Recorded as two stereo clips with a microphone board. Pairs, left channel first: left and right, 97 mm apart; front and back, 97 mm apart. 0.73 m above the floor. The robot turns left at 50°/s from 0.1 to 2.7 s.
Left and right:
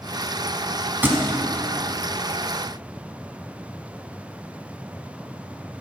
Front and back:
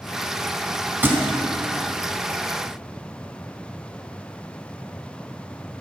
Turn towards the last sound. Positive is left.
turn(degrees=145)